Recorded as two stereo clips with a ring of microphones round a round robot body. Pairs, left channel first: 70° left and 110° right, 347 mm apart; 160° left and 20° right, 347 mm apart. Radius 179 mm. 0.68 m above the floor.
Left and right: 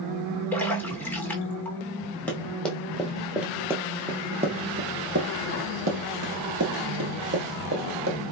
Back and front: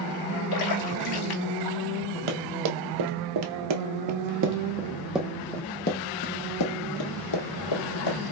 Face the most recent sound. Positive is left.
turn(degrees=-175)